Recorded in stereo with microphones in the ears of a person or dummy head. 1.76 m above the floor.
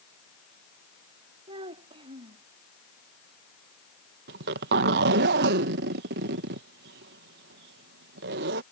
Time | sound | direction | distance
1.5 | a child speaking | 35° right (ahead or behind) | ?
4.3 | a zipper | 60° right (ahead or behind) | ?